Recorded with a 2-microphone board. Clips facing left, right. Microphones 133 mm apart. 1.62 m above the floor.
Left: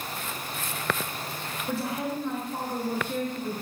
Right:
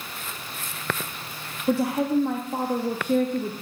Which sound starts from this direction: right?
A woman speaking, at 1.7 s.